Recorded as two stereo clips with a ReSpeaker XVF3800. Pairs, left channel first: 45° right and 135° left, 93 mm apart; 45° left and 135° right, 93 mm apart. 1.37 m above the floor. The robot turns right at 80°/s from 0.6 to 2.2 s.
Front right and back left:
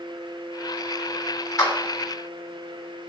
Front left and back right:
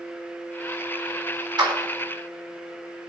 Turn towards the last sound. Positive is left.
turn(degrees=-50)